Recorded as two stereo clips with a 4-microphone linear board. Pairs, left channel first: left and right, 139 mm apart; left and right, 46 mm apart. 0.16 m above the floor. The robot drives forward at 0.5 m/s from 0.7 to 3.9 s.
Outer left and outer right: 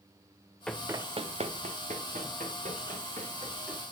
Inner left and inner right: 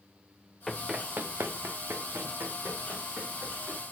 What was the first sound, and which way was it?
Running footsteps, 5° left (ahead or behind).